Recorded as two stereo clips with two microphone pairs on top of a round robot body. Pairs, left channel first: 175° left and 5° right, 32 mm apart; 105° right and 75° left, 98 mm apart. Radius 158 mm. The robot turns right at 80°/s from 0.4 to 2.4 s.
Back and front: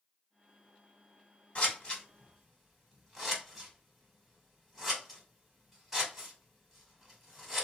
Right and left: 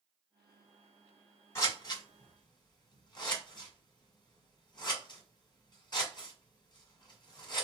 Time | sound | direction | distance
1.6 | scissors | 155° right | 1.7 m